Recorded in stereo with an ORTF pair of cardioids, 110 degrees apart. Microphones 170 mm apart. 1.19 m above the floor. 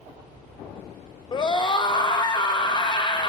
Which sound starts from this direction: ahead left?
A scream, at 1.3 s.